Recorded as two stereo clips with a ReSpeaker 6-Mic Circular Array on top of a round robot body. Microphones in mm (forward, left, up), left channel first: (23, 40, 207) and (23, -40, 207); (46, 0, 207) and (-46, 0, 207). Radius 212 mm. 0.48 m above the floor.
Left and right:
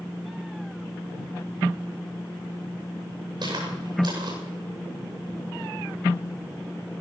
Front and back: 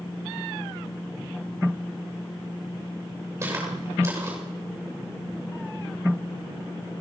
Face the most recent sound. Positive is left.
turn(degrees=-115)